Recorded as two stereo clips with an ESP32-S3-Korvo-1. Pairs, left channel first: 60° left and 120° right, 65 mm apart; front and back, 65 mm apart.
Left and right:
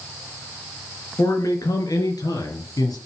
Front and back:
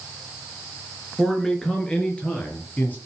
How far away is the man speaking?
About 4 m.